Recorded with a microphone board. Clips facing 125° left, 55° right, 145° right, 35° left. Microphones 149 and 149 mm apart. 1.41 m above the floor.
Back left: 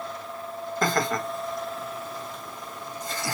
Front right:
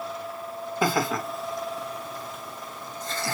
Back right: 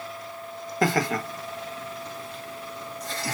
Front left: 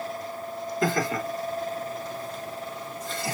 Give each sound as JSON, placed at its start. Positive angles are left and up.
{"t": 0.8, "sound": "laughter", "azimuth_deg": -135, "distance_m": 1.2}